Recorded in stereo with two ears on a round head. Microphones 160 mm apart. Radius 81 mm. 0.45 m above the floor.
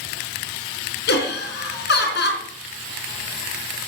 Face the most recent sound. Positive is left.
turn(degrees=65)  # may be behind; listen again after turning